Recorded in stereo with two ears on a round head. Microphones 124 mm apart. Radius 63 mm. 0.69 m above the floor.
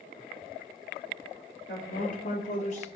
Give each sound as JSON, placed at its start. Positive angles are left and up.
{"t": 1.7, "sound": "a woman speaking", "side_deg": 70, "distance_m": 1.7}